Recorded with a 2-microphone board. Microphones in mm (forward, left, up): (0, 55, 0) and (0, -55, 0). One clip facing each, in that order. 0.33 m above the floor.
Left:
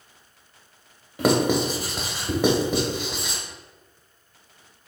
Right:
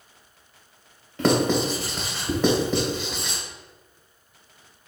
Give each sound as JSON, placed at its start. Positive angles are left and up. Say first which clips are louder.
{"t": 1.2, "sound": "writing", "louder": "even", "side_deg": 10, "distance_m": 0.9}